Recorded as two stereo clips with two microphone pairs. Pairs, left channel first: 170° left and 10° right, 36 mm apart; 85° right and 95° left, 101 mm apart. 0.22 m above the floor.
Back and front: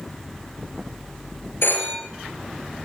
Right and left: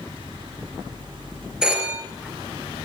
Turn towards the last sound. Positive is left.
turn(degrees=175)